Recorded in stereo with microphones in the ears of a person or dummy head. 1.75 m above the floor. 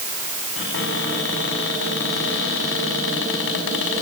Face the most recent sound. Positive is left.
turn(degrees=75)  # may be behind; listen again after turning